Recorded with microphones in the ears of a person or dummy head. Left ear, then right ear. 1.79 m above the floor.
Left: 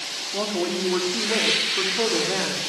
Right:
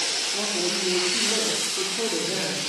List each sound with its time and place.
0.3 s a woman speaking: 45° left (ahead or behind), 4.5 m; by 2.7 s 30° left (ahead or behind), 5 m